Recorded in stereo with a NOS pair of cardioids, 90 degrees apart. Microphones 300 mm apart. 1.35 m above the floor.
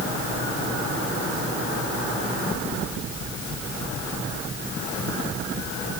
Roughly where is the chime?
No chime in this recording.